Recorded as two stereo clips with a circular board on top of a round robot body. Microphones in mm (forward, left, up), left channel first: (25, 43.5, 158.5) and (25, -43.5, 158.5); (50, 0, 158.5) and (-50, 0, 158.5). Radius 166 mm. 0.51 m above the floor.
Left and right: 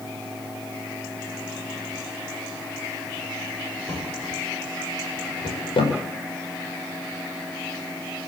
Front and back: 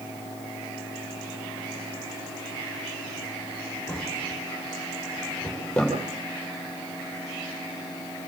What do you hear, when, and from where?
3.9 s a drawer: 80° left, 8.5 m